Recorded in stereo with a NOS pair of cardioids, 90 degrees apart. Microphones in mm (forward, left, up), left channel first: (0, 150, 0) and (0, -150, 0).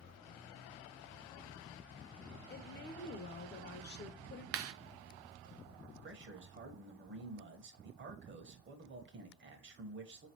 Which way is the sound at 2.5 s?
35° left.